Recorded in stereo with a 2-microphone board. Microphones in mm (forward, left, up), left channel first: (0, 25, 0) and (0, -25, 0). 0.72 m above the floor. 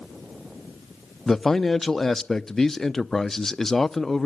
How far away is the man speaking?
About 0.7 m.